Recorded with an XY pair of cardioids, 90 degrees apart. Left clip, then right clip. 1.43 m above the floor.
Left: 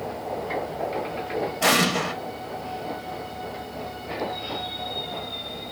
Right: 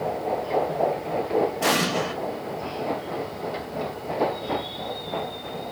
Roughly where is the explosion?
Ahead left.